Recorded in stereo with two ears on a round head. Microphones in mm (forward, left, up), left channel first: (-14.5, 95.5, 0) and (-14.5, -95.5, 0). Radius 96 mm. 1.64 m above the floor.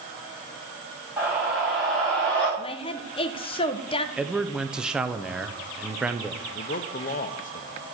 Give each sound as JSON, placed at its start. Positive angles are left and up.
{"t": 1.2, "sound": "a scream", "side_deg": -10, "distance_m": 3.5}
{"t": 2.6, "sound": "a woman speaking", "side_deg": 25, "distance_m": 0.6}
{"t": 4.2, "sound": "a man speaking", "side_deg": -5, "distance_m": 0.6}
{"t": 6.5, "sound": "a man speaking", "side_deg": 40, "distance_m": 0.7}